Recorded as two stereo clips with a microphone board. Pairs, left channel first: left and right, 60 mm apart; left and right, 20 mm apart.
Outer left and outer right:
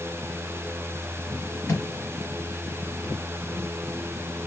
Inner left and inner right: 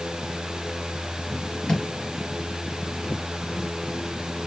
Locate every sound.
1.7 s a thud: 45° left (ahead or behind), 4.5 m